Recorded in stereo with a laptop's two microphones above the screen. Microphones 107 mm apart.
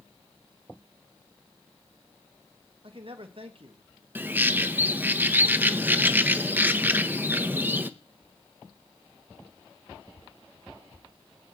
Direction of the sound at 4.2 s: 15° right (ahead or behind).